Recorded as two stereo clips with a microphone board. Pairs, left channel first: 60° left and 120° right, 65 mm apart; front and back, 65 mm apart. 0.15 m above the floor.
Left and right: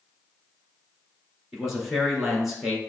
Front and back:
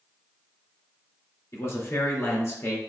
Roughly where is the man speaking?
Ahead right.